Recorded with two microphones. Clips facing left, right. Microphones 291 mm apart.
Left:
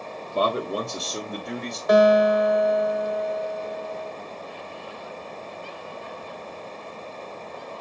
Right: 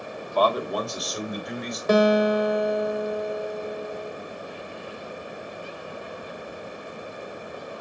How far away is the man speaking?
About 1.6 m.